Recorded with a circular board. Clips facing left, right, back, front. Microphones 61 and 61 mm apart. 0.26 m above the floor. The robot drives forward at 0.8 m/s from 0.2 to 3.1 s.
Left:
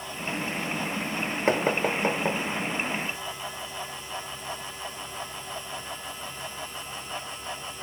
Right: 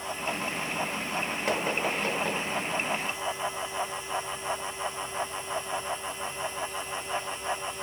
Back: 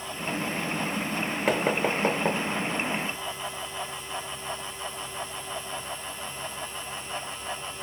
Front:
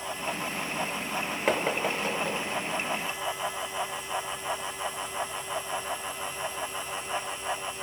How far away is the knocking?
About 0.7 m.